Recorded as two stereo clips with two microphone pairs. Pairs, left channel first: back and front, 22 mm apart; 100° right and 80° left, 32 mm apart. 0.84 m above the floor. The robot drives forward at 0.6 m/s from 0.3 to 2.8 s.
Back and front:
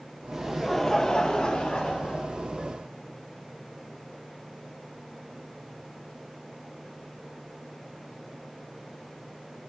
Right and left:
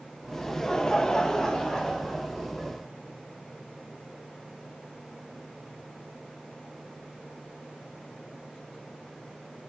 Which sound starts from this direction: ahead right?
Laughter, at 0.3 s.